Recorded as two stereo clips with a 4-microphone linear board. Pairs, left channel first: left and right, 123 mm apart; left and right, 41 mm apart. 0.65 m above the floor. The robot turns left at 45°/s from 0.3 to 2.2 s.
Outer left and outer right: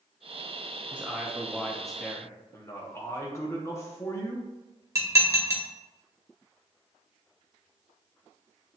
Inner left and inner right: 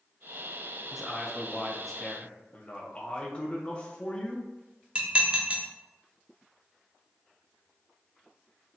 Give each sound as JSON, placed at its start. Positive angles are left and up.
{"t": 0.9, "sound": "a man speaking", "side_deg": -15, "distance_m": 0.6}
{"t": 2.5, "sound": "a man speaking", "side_deg": 20, "distance_m": 0.7}
{"t": 5.0, "sound": "dishes clattering", "side_deg": -25, "distance_m": 0.9}